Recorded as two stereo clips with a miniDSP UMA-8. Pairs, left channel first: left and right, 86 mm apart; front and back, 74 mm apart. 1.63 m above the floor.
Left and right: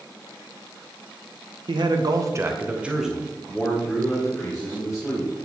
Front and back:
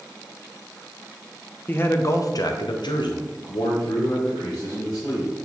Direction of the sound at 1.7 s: 65° right.